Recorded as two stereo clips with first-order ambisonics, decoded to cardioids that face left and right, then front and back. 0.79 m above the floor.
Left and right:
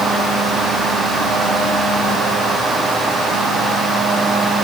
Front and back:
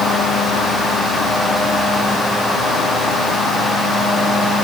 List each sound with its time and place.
Only background noise.